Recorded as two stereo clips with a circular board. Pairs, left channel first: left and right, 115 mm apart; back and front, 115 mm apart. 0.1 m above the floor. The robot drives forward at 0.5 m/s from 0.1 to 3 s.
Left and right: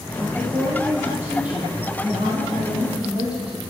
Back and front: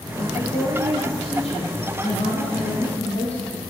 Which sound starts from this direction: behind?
A woman speaking, at 0.2 s.